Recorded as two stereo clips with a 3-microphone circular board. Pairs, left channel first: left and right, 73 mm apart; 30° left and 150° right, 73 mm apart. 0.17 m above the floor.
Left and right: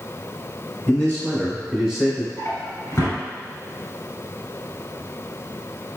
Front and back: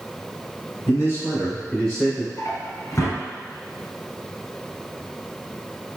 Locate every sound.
0.9 s a man speaking: 45° left, 1.6 m; by 2.3 s 70° right, 1.4 m
2.4 s a drawer: 50° left, 1.1 m